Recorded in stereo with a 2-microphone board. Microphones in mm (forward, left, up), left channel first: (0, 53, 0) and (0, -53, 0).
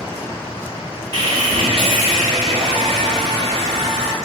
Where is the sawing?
60° right (ahead or behind), 1.1 m.